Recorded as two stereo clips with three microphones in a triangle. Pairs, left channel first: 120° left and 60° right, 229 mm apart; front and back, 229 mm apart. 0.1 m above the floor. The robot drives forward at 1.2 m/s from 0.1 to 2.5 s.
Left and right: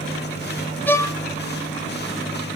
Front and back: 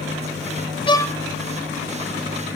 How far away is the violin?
About 0.9 m.